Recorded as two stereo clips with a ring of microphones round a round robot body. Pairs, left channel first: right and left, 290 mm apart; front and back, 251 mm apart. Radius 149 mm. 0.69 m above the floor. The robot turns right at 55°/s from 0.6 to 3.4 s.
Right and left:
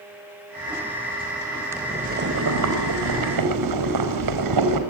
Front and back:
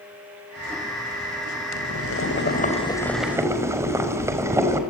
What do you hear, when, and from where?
1.7 s boiling: 10° left, 5 m; by 4.8 s 100° left, 5 m